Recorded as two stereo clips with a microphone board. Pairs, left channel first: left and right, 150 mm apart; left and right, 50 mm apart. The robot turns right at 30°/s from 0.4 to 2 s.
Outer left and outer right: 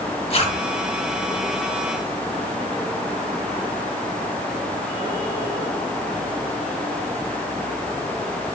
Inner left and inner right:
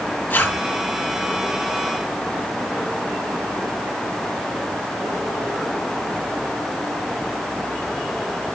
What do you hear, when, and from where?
0.3 s a zipper: 40° left (ahead or behind), 3.5 m; by 0.6 s 35° left (ahead or behind), 3.5 m